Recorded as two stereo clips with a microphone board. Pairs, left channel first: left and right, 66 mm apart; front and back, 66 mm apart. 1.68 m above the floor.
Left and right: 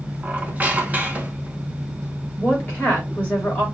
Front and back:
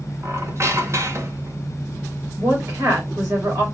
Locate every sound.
0.2 s a squeak: 150° right, 0.9 m
2.4 s a woman speaking: 155° left, 3.5 m